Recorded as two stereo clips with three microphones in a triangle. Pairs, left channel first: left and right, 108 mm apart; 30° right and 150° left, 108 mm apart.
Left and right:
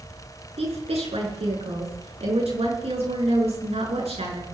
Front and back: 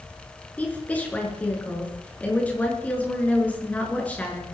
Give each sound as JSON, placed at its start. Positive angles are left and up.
{"t": 0.6, "sound": "a woman speaking", "azimuth_deg": -105, "distance_m": 6.5}